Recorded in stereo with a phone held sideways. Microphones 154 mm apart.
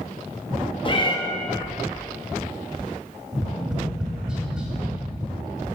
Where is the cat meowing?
35° left (ahead or behind), 0.8 m.